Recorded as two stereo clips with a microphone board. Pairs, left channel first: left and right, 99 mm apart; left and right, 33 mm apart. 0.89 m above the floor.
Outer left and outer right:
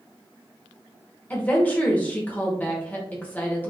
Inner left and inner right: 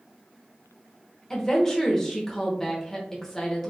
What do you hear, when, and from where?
1.3 s a woman speaking: 15° left (ahead or behind), 0.8 m